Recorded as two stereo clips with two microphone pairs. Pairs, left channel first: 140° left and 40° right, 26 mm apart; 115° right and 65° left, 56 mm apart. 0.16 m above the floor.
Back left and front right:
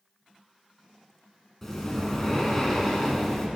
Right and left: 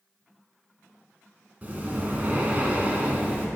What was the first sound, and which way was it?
Breathing, 75° left.